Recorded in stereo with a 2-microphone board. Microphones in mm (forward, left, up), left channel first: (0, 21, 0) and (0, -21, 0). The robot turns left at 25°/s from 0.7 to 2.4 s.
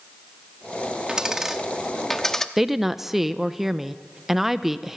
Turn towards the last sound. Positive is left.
turn(degrees=-10)  # may be behind; listen again after turning